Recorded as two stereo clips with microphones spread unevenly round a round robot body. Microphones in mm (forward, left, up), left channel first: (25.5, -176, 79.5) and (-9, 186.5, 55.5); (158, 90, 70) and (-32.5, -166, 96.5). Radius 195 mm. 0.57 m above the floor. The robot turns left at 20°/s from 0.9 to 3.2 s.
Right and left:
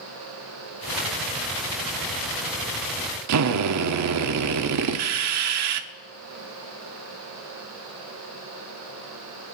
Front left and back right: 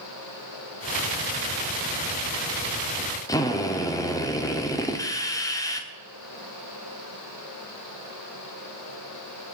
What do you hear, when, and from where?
3.3 s a drill: 130° left, 0.9 m